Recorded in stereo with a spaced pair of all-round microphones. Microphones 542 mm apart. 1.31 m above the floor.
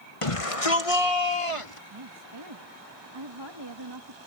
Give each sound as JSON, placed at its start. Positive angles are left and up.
{"t": 0.2, "sound": "a shout", "side_deg": 70}
{"t": 1.9, "sound": "a woman speaking", "side_deg": -50}